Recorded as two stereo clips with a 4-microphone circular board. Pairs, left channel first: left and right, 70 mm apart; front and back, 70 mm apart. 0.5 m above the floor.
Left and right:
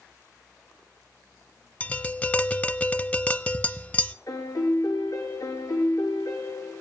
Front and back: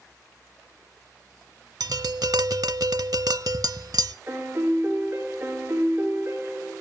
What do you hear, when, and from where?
1.8 s tapping: 155° left, 0.5 m
4.3 s a piano: 125° left, 7 m